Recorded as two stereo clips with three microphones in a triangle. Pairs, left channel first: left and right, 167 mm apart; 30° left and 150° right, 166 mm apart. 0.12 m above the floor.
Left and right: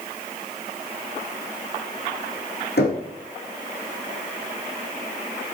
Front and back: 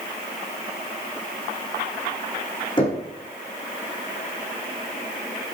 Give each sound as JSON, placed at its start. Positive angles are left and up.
{"t": 2.8, "sound": "knocking", "azimuth_deg": 90, "distance_m": 6.0}